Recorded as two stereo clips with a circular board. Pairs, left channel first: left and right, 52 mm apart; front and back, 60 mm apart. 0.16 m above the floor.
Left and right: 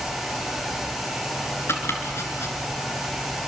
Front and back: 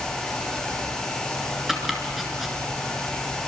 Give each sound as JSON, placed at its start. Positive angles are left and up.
{"t": 1.7, "sound": "chopping", "azimuth_deg": 95, "distance_m": 3.0}